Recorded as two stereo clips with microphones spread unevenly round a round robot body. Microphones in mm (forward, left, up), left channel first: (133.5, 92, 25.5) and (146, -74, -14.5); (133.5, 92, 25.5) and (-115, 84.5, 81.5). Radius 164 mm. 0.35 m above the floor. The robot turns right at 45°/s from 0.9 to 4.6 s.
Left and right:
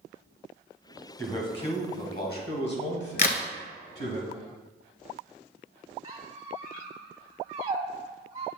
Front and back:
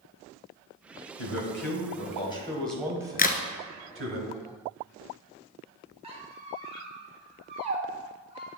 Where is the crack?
60° left, 1.1 m; by 3.4 s 70° left, 1.1 m.